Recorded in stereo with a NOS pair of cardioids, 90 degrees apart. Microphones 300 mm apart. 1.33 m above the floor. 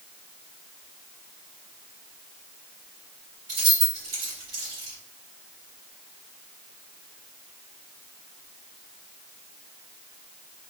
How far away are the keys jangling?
About 2.0 m.